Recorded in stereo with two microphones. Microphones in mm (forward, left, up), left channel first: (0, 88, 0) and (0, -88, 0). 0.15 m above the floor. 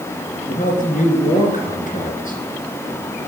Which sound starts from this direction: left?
A man speaking, at 0.5 s.